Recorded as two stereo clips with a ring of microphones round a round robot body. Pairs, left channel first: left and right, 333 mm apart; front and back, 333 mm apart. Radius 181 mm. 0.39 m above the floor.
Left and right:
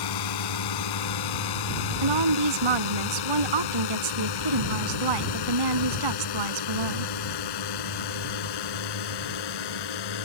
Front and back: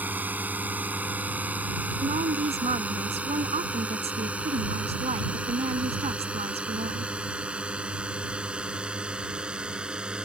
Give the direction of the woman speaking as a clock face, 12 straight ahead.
4 o'clock.